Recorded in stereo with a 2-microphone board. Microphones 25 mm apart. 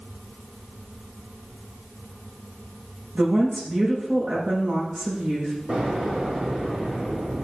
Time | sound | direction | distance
3.1 | a woman speaking | 75° right (ahead or behind) | 6.5 m
5.7 | an explosion | 65° right (ahead or behind) | 4.5 m